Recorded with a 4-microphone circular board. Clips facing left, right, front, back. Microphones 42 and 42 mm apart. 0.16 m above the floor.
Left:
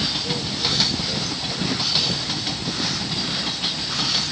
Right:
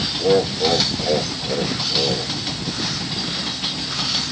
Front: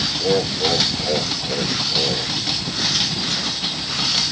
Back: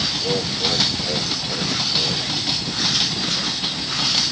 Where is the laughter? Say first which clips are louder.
Right 9 dB, front 7 dB; 70° right; by 2.3 s 60° right.